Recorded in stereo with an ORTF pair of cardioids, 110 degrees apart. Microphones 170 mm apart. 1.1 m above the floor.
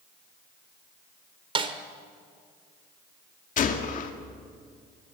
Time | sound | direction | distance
1.6 | a snare drum | 30° right | 2 m
3.6 | a gunshot | 50° left | 2 m